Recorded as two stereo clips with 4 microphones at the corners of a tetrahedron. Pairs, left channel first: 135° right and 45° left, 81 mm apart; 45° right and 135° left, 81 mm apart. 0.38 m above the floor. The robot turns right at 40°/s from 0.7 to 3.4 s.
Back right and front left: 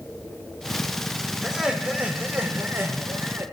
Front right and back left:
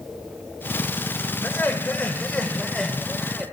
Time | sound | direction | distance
1.4 | laughter | 35° right | 0.8 m